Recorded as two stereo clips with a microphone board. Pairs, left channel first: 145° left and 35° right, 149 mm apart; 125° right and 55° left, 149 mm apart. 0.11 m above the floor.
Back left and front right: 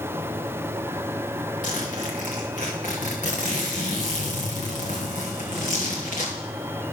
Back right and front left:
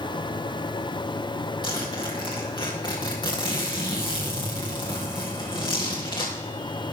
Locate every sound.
1.6 s a zipper: 175° left, 3 m